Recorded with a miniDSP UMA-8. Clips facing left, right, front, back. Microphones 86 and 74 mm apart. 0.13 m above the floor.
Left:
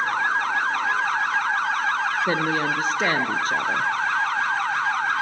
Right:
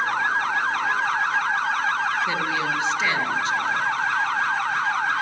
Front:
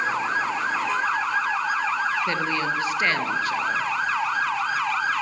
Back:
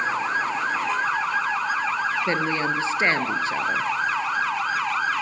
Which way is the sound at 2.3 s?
120° left.